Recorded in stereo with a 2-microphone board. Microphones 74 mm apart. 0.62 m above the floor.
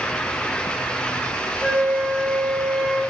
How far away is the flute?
About 1.0 m.